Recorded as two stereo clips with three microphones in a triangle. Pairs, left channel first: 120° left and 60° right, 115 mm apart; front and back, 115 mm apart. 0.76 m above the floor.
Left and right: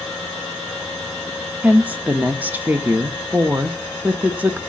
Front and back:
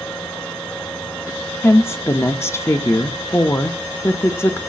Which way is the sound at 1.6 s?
10° right.